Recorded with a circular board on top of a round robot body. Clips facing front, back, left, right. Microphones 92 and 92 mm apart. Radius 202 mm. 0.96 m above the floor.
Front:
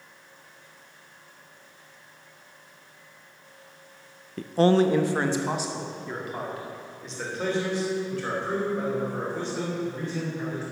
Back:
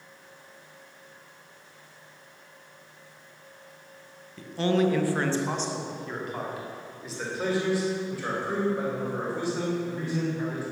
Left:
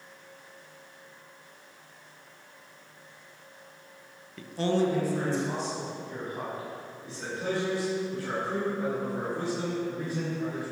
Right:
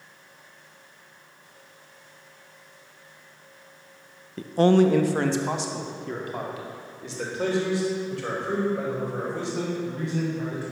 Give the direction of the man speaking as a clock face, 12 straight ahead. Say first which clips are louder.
Front 5 dB, right 8 dB; 1 o'clock.